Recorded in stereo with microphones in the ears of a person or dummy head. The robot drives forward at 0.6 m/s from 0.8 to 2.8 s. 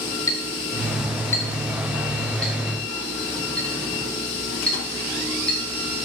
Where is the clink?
15° left (ahead or behind), 0.6 m; by 6.0 s 5° left (ahead or behind), 1.8 m.